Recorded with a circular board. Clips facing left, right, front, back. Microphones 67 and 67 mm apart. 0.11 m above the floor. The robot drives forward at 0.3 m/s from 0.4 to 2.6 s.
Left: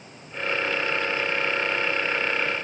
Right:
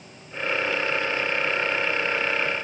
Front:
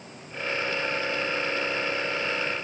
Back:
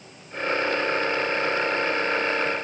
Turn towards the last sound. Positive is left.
No sound to turn to.